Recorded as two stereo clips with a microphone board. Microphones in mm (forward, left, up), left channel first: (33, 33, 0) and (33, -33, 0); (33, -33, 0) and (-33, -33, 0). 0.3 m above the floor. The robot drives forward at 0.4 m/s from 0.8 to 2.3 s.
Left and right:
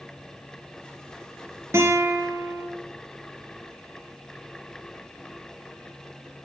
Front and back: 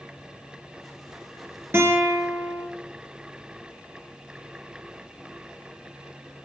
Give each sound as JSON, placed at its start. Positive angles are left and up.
{"t": 1.7, "sound": "a guitar", "azimuth_deg": -130, "distance_m": 1.6}